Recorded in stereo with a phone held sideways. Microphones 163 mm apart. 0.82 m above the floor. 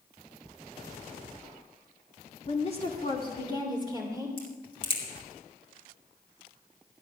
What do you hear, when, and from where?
2.5 s a woman speaking: 45° left (ahead or behind), 2 m; by 4.3 s 25° left (ahead or behind), 3 m
4.4 s a crack: 35° left (ahead or behind), 4.5 m